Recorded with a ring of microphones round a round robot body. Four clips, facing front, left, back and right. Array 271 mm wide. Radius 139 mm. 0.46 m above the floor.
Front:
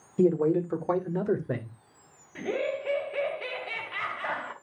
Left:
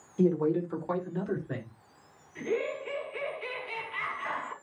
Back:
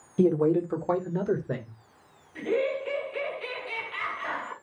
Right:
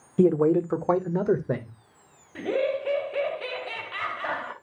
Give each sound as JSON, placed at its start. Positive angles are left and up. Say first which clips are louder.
{"t": 0.2, "sound": "a man speaking", "louder": "right 6 dB, back 1 dB", "azimuth_deg": -95, "distance_m": 1.6}
{"t": 2.4, "sound": "laughter", "louder": "right 6 dB, back 3 dB", "azimuth_deg": -65, "distance_m": 7.5}